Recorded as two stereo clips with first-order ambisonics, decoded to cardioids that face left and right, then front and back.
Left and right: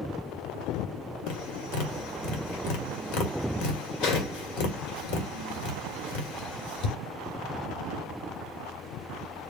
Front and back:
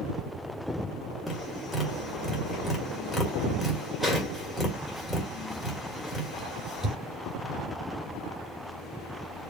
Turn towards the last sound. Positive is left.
turn(degrees=85)